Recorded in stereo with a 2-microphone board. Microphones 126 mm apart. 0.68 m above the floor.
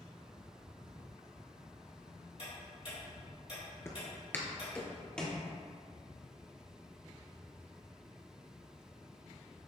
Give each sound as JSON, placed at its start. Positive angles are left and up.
{"t": 2.4, "sound": "ticking", "side_deg": 50, "distance_m": 2.0}
{"t": 3.9, "sound": "footsteps", "side_deg": 20, "distance_m": 0.6}